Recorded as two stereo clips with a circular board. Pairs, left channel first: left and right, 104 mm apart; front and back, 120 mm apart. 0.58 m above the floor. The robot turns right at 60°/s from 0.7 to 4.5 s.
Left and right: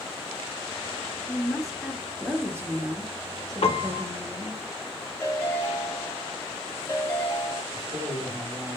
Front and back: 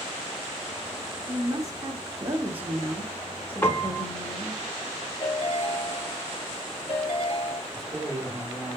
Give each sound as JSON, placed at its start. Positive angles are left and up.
{"t": 1.3, "sound": "a woman speaking", "azimuth_deg": 160, "distance_m": 0.6}
{"t": 3.6, "sound": "a piano", "azimuth_deg": 70, "distance_m": 0.6}
{"t": 5.2, "sound": "a ringtone", "azimuth_deg": 25, "distance_m": 1.1}
{"t": 7.7, "sound": "a man speaking", "azimuth_deg": -90, "distance_m": 1.6}